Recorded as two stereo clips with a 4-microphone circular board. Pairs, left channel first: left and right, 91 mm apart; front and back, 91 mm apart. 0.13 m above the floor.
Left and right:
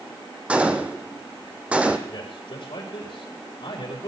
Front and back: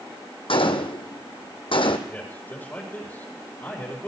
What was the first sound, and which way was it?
A gunshot, 15° right.